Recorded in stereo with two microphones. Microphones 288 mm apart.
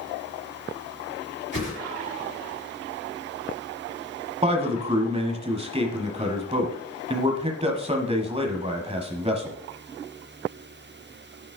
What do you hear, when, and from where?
1.5 s a whoosh: 40° left (ahead or behind), 3.5 m
4.4 s a man speaking: 20° right (ahead or behind), 1.1 m